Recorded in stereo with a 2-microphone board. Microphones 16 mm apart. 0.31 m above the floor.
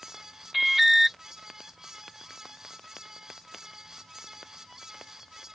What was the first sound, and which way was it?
An alarm, 10° right (ahead or behind).